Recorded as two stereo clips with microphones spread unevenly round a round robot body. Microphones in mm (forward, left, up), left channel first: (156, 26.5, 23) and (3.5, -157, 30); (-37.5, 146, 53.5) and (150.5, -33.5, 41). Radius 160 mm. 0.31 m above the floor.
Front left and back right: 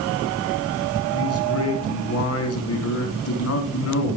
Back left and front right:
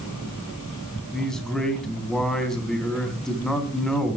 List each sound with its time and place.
1.1 s a man speaking: 50° left, 3.5 m